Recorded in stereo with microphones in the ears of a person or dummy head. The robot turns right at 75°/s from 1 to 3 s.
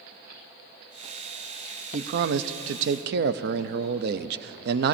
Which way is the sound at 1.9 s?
140° right.